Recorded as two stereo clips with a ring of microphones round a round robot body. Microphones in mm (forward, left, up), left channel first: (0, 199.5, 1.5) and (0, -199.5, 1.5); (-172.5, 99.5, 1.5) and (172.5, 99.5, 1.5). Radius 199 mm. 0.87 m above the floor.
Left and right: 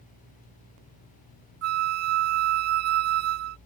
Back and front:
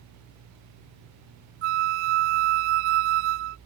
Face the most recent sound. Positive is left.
turn(degrees=-35)